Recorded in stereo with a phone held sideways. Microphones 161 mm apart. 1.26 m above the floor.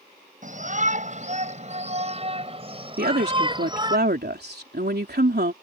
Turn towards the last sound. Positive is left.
turn(degrees=-70)  # may be behind; listen again after turning